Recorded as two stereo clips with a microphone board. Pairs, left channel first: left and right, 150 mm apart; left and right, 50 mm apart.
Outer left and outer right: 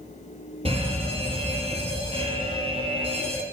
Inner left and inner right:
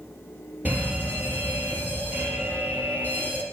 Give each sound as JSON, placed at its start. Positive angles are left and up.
{"t": 0.7, "sound": "a fire alarm", "side_deg": -40, "distance_m": 5.0}